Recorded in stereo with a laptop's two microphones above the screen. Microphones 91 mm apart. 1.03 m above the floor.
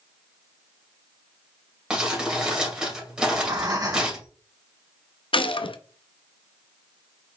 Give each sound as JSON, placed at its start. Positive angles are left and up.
{"t": 1.9, "sound": "crumpling", "side_deg": -10, "distance_m": 2.5}
{"t": 3.2, "sound": "breathing", "side_deg": -45, "distance_m": 2.5}
{"t": 5.3, "sound": "a gunshot", "side_deg": 70, "distance_m": 0.5}